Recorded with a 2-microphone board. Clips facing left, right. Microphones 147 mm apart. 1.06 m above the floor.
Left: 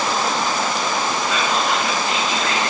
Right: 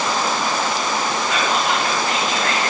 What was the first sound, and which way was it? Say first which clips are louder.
Whispering: right 1 dB; 70° right (ahead or behind).